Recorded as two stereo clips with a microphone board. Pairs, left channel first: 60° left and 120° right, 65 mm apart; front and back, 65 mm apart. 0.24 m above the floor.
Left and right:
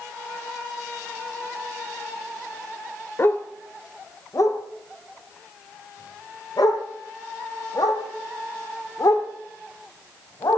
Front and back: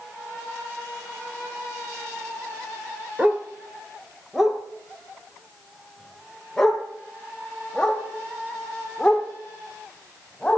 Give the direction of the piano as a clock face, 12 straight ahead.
I don't hear a piano.